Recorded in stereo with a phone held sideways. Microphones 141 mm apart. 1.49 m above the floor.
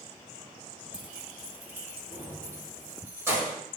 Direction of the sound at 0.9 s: 10° right (ahead or behind).